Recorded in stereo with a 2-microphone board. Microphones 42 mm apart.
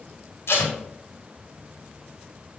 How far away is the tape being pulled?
About 2.5 m.